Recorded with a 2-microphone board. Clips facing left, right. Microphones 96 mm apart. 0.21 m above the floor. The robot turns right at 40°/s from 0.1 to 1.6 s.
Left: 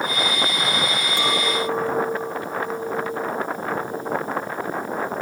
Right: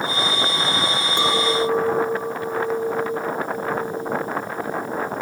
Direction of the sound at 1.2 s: 20° right (ahead or behind).